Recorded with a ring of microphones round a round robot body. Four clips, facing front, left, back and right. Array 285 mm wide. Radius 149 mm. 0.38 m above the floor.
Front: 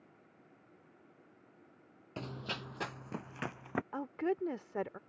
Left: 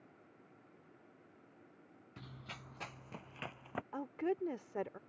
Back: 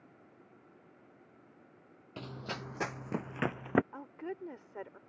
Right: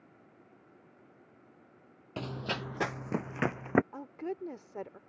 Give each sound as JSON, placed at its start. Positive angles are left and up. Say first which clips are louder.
{"t": 2.2, "sound": "running footsteps", "louder": "right 17 dB, back 1 dB", "azimuth_deg": -80}
{"t": 3.9, "sound": "a woman speaking", "louder": "left 1 dB, front 7 dB", "azimuth_deg": 10}